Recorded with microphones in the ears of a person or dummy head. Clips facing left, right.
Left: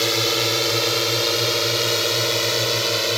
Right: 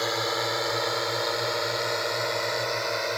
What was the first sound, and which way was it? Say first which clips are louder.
A drone: left 6 dB; 40° left (ahead or behind).